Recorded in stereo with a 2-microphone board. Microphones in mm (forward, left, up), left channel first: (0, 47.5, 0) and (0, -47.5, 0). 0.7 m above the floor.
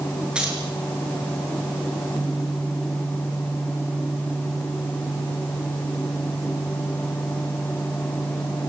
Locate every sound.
0.3 s keys jangling: 10° right (ahead or behind), 8.5 m